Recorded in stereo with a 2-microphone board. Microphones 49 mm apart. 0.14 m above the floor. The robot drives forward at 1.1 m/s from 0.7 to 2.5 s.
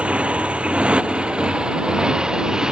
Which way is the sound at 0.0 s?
25° right (ahead or behind).